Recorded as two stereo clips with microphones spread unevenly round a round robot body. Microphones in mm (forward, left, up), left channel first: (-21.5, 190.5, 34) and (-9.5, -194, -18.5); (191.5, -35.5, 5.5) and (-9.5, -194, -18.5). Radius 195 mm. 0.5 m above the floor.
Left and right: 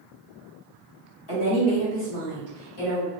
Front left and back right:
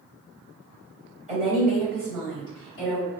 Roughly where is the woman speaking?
Left.